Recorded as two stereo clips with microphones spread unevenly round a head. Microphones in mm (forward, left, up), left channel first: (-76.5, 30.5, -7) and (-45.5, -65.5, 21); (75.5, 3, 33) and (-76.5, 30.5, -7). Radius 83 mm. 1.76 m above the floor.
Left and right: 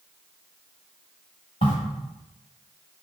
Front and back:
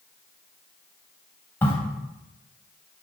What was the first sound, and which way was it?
A crack, 50° left.